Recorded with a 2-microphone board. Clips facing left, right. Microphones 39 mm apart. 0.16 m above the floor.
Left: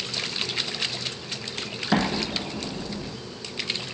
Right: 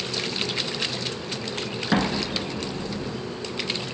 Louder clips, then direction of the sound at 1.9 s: Even; 10° right (ahead or behind).